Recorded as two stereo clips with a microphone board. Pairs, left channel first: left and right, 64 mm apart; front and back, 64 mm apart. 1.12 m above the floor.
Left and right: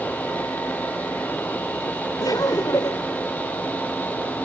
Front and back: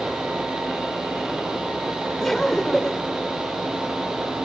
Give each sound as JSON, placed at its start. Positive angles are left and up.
{"t": 2.2, "sound": "laughter", "azimuth_deg": 85}